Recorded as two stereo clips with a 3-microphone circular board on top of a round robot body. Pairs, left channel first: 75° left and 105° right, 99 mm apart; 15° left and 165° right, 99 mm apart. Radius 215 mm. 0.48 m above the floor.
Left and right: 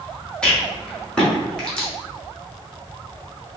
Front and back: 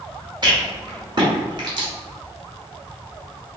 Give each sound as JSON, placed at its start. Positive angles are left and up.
{"t": 0.4, "sound": "a rattle", "azimuth_deg": 155, "distance_m": 1.7}